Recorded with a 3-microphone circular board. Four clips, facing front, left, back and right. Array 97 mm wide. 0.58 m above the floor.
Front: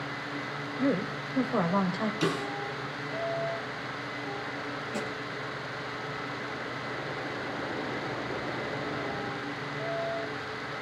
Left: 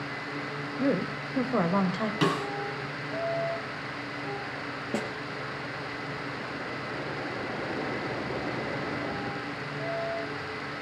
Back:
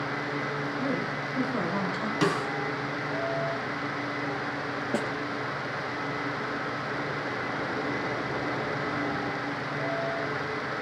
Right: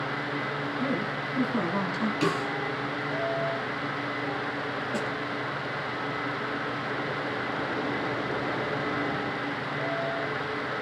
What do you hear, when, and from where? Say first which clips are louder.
0.8 s a woman speaking: left 5 dB, front 6 dB; 55° left, 3 m
2.2 s a snare drum: left 1 dB, back 5 dB; 135° left, 4.5 m
4.9 s a snare drum: left 1 dB, back 6 dB; 155° left, 3.5 m